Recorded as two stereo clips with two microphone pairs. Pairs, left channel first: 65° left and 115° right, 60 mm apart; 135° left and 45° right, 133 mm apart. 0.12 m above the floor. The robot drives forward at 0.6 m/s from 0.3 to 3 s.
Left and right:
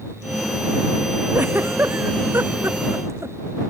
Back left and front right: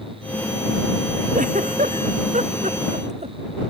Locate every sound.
1.3 s a giggle: 60° right; by 3.4 s 75° right